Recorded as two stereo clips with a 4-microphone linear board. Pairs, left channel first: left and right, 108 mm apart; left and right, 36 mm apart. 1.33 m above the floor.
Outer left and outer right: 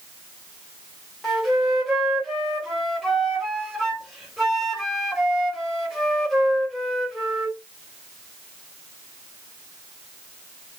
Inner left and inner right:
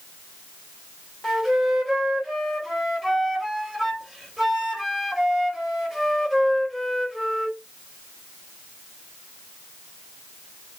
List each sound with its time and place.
1.2 s a flute: centre (ahead or behind), 1.4 m